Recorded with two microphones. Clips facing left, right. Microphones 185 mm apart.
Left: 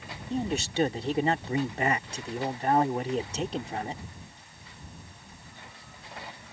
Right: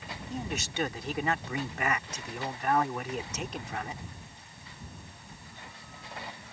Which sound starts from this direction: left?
A man speaking, at 0.3 s.